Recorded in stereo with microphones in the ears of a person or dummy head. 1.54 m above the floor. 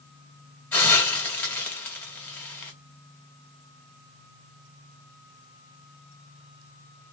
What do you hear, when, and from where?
0.7 s a hiss: 10° left (ahead or behind), 1.5 m